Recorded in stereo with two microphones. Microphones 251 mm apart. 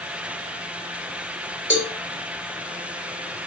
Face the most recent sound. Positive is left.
turn(degrees=50)  # may be behind; listen again after turning